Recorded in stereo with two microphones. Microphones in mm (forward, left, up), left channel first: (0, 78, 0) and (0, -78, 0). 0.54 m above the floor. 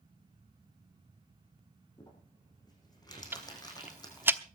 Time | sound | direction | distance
2.0 | crumpling | 25° left (ahead or behind) | 6.5 m
3.3 | ticking | 15° right (ahead or behind) | 0.8 m